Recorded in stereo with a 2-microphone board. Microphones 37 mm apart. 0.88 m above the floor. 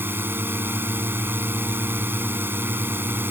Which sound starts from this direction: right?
A drone, at 0.0 s.